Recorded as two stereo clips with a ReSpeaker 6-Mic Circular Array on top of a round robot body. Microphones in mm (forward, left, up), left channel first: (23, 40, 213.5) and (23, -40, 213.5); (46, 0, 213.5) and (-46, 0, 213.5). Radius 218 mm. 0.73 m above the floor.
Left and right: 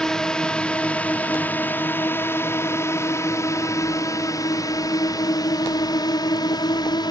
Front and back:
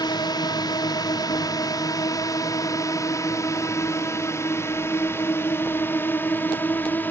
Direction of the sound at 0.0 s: 10° left.